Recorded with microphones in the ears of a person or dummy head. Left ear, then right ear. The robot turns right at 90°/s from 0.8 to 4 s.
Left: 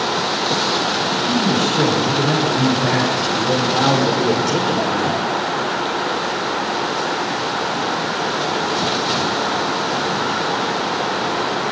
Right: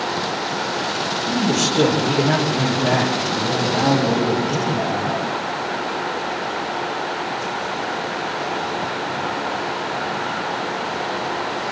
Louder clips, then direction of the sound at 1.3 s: Left 2 dB; 135° right.